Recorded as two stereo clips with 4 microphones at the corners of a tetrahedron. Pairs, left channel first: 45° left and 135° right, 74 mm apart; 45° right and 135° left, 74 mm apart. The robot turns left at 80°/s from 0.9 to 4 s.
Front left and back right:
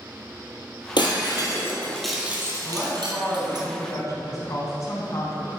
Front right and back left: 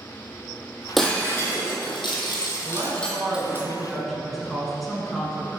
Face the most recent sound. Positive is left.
turn(degrees=45)